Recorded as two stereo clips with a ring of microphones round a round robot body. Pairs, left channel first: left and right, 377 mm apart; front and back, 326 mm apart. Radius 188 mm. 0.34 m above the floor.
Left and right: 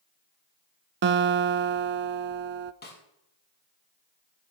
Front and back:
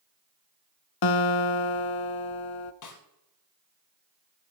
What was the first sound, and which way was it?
A guitar, 30° right.